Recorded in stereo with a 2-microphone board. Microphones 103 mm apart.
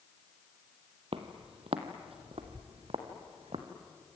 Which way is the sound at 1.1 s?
65° right (ahead or behind).